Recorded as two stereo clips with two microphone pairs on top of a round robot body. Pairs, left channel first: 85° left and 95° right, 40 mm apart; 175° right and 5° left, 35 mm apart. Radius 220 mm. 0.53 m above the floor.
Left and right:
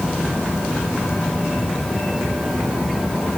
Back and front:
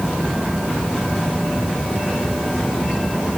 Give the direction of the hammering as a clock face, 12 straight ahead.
No hammering in this recording.